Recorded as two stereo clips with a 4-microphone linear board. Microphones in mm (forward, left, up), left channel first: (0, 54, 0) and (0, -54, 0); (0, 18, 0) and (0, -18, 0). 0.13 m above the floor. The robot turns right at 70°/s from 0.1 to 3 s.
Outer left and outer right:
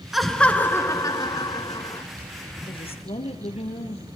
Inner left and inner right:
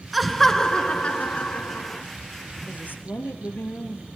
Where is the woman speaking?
50° left (ahead or behind), 3 m; by 4.0 s 65° left (ahead or behind), 3 m.